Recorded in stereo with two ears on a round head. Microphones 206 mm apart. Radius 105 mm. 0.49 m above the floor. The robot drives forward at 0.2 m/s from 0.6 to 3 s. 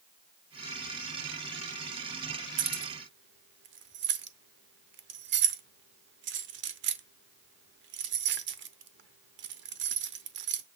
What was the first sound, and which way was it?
Keys jangling, 55° right (ahead or behind).